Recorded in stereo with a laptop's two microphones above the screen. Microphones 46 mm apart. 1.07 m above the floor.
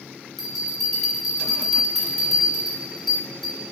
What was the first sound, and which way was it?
A bell, 5° left (ahead or behind).